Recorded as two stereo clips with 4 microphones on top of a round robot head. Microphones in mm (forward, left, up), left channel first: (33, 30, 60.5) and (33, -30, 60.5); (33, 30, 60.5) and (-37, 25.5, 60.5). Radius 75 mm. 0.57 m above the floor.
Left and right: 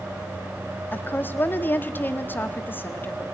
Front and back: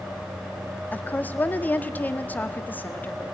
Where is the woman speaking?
55° left, 1.4 m.